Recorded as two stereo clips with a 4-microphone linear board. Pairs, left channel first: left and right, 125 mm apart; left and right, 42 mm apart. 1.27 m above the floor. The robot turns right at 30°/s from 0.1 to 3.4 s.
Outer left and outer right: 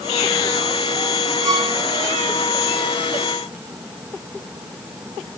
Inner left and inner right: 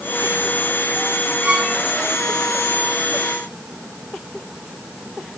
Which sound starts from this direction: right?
A violin, at 1.4 s.